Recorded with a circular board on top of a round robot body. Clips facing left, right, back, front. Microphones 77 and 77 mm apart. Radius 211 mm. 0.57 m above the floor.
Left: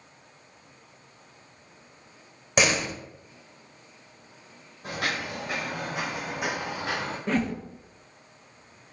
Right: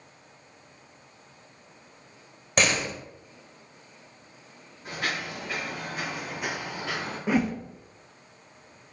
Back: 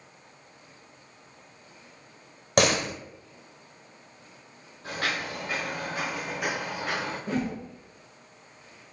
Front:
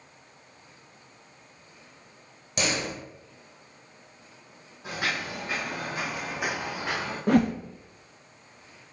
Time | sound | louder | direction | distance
2.6 | a door slam | left 1 dB, back 6 dB | 175° left | 0.8 m
4.8 | footsteps | left 1 dB, even | 80° left | 1.3 m
7.3 | a whoosh | right 2 dB, front 10 dB | 10° right | 0.6 m